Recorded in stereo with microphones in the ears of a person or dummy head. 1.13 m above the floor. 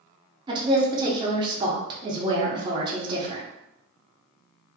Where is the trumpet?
No trumpet in this recording.